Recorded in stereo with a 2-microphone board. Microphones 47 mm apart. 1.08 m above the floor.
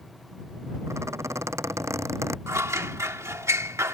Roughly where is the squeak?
Right.